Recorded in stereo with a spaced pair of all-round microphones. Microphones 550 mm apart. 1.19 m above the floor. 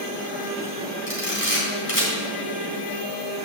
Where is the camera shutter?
75° left (ahead or behind), 3.5 m.